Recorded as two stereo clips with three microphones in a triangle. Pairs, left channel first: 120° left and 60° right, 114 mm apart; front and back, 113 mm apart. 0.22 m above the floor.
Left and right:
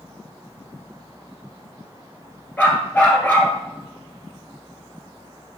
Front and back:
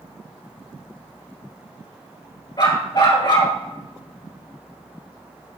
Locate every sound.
2.6 s a dog barking: 45° left, 1.7 m